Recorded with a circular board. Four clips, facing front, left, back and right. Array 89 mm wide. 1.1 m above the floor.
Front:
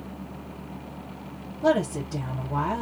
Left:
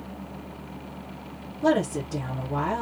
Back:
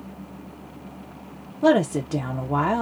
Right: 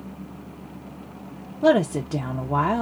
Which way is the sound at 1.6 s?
150° right.